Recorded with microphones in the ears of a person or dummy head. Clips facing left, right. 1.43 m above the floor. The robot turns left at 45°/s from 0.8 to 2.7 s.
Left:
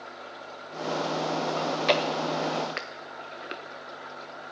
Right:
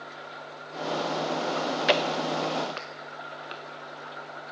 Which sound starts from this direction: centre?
Chewing, at 1.6 s.